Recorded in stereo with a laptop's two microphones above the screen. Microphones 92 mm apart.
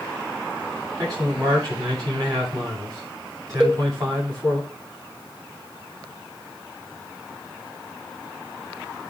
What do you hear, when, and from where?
1.0 s a man speaking: 45° right (ahead or behind), 8 m
3.6 s a cowbell: 15° right (ahead or behind), 1.7 m